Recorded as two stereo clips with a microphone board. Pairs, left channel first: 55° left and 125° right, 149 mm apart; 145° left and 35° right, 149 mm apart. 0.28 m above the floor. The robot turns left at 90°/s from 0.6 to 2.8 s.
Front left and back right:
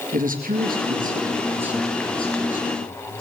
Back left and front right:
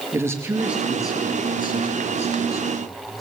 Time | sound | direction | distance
0.1 | a man speaking | 105° right | 4.5 m